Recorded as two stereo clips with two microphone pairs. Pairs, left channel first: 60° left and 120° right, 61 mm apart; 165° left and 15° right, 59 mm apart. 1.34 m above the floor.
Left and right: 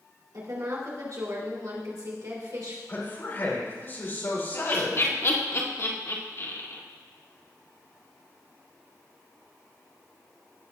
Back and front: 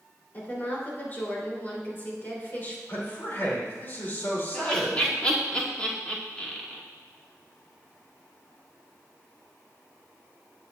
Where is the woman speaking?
135° right, 3.5 m.